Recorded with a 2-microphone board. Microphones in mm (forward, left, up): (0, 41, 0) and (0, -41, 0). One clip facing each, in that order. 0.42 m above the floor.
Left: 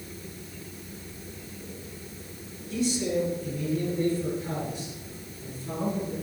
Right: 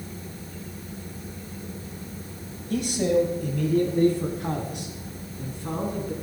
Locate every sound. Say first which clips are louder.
2.7 s a man speaking: right 4 dB; 60° right (ahead or behind), 2.5 m; by 6.1 s 70° right (ahead or behind), 4.5 m